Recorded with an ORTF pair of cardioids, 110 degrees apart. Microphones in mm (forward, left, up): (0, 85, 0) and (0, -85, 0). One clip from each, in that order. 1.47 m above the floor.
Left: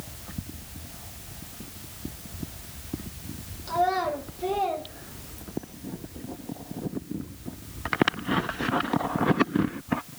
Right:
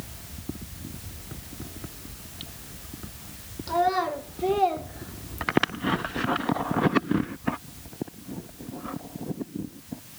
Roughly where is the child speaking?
Ahead.